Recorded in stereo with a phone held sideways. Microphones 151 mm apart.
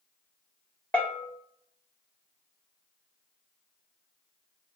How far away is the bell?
About 1.1 m.